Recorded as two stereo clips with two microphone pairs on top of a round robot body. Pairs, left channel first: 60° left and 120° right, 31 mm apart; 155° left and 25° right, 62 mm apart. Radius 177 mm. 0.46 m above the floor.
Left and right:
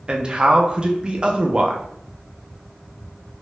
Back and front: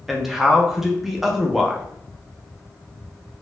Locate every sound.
0.1 s a man speaking: 105° right, 0.7 m